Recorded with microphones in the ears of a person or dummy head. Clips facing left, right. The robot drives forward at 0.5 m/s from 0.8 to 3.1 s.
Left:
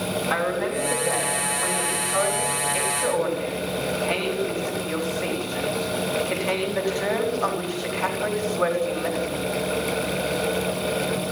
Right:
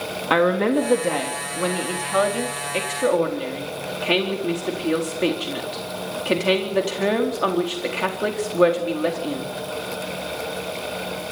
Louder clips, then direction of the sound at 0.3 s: Right 10 dB; 60° right (ahead or behind).